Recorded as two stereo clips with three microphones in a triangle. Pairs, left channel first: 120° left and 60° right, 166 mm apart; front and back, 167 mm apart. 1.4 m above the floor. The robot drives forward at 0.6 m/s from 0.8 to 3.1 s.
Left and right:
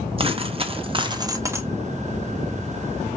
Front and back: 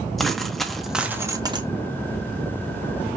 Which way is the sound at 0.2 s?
85° right.